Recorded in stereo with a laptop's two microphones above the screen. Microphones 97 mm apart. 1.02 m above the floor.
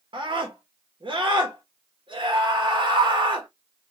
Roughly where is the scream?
Right.